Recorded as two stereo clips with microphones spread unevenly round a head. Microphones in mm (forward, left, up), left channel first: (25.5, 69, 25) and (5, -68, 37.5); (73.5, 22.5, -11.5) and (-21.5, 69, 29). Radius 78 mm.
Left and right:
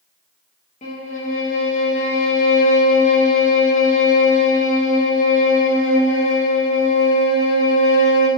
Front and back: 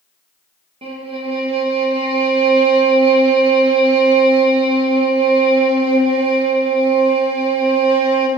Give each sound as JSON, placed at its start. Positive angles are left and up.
{"t": 0.8, "sound": "a violin", "azimuth_deg": 125, "distance_m": 0.8}